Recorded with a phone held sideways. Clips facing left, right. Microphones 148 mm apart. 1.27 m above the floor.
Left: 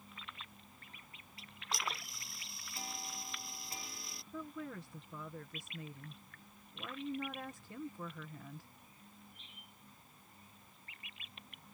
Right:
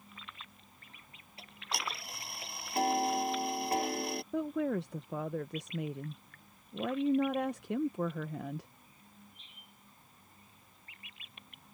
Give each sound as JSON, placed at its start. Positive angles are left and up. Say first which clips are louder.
{"t": 1.4, "sound": "ticking", "louder": "right 3 dB", "side_deg": -65}
{"t": 4.3, "sound": "a woman speaking", "louder": "right 12 dB", "side_deg": -80}